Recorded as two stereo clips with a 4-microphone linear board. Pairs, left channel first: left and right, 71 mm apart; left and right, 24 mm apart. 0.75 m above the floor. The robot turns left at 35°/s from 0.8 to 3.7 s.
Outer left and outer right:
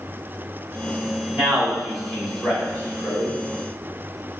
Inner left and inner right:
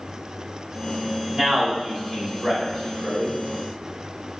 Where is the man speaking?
25° right (ahead or behind), 1.5 m; by 3.3 s 45° left (ahead or behind), 1.5 m.